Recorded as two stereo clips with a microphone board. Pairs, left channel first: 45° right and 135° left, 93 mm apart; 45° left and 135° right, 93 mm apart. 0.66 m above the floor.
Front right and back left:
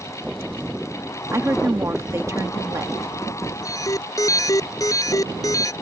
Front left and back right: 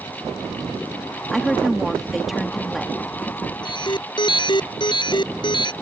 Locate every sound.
1.3 s a woman speaking: 140° left
3.6 s an alarm: 10° left